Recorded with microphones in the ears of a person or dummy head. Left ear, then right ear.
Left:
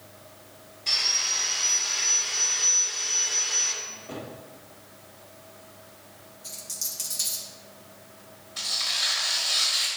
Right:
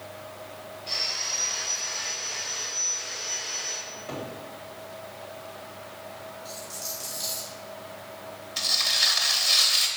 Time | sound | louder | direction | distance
0.9 | sawing | left 4 dB | 65° left (ahead or behind) | 3 m
3.8 | a cupboard door | right 2 dB | 45° right (ahead or behind) | 2 m
6.4 | a dropped coin | left 4 dB | 55° left (ahead or behind) | 2 m
8.6 | tearing paper | right 3 dB | 20° right (ahead or behind) | 1.0 m